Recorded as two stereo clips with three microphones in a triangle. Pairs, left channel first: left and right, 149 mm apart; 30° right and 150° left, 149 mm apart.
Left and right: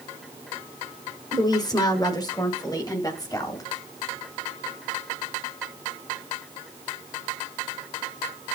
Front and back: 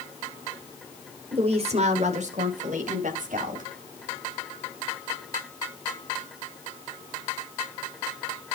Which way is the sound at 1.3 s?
135° left.